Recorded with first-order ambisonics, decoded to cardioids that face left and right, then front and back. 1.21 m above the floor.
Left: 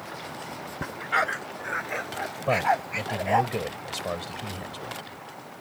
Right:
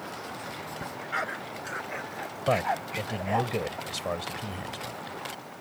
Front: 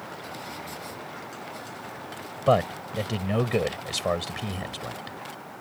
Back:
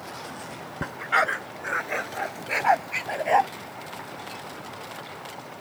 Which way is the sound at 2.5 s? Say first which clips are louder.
Left 3 dB, even; straight ahead.